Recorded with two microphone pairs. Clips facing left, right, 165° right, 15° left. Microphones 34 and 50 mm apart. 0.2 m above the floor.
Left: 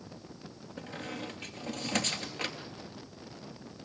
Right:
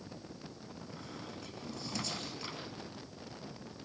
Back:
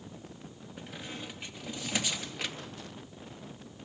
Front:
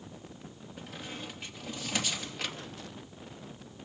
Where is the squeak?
115° left, 3 m.